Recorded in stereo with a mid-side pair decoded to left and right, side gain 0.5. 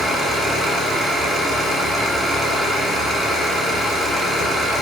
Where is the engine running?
35° right, 1.0 m.